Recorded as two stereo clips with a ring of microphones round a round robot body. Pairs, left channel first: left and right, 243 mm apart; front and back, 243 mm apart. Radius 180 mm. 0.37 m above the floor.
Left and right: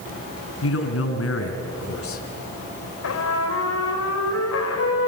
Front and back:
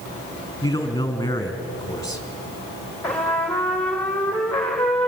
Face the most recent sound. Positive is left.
turn(degrees=85)